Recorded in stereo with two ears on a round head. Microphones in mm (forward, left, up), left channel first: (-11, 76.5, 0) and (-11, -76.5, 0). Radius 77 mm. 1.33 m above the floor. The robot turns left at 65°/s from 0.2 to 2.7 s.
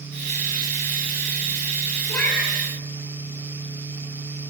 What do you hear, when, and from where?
2.1 s a cat meowing: 15° left, 9 m; by 2.6 s 20° right, 9 m